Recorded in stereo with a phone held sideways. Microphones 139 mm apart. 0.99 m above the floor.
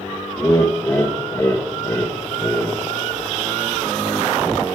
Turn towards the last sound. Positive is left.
turn(degrees=20)  # may be behind; listen again after turning